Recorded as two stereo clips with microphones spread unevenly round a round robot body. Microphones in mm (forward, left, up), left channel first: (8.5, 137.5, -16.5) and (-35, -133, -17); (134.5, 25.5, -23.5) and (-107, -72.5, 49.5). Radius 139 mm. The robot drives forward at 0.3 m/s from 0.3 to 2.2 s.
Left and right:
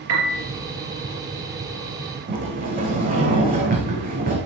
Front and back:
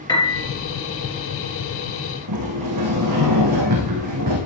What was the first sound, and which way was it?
A piano, 55° right.